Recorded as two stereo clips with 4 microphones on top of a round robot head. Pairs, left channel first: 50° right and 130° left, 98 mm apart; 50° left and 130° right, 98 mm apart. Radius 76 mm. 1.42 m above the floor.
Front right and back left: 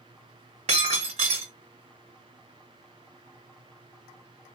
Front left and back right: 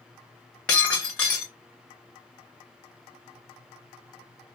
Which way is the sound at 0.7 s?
120° left.